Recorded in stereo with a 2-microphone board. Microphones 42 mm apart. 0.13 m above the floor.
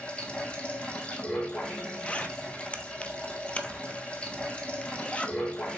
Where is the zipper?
30° left (ahead or behind), 0.7 m.